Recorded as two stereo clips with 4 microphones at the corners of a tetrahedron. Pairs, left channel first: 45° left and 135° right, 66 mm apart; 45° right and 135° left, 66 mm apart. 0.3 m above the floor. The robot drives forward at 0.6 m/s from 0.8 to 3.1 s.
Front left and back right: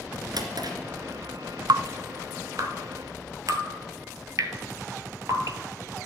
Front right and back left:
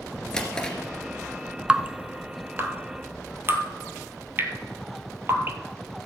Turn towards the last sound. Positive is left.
turn(degrees=-170)